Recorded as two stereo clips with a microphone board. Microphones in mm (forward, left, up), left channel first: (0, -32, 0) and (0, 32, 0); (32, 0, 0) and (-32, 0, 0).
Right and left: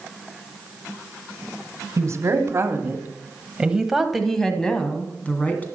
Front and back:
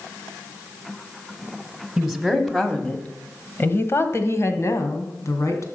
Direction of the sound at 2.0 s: 95° left.